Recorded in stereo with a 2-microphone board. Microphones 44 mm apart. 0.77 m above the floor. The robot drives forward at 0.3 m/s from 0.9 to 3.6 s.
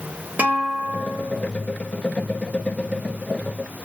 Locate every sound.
0.4 s a guitar: 45° right (ahead or behind), 1.3 m